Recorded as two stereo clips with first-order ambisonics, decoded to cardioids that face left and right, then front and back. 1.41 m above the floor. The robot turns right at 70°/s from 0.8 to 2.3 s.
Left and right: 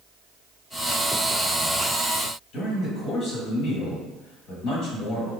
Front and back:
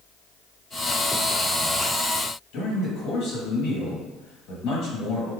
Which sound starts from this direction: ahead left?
A man speaking, at 2.5 s.